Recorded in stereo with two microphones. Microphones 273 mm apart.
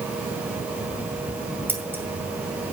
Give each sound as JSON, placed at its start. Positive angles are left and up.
{"t": 1.7, "sound": "scissors", "side_deg": -5, "distance_m": 2.0}